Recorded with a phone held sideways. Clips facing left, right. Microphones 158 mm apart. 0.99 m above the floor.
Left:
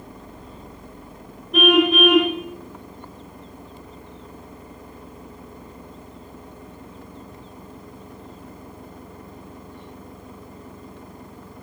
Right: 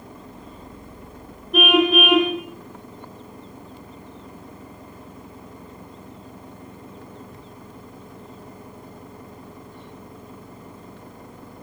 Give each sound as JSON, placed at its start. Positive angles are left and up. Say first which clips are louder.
{"t": 1.5, "sound": "a car horn", "louder": "left 1 dB", "side_deg": 0, "distance_m": 5.0}